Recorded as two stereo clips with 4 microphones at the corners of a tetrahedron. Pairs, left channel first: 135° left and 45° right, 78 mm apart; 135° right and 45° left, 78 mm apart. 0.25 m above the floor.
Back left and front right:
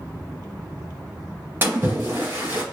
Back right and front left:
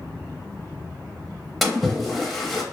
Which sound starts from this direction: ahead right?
A splash, at 1.6 s.